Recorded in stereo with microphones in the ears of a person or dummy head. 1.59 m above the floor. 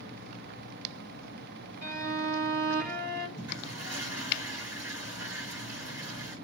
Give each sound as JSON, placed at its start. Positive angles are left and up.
{"t": 1.8, "sound": "a violin", "side_deg": -55, "distance_m": 2.5}
{"t": 3.4, "sound": "a toilet flushing", "side_deg": -25, "distance_m": 3.0}